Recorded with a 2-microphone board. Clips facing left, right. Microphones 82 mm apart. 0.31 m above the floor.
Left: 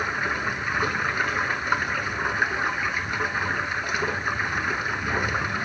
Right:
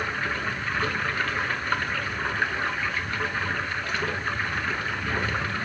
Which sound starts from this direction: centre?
Running water, at 0.0 s.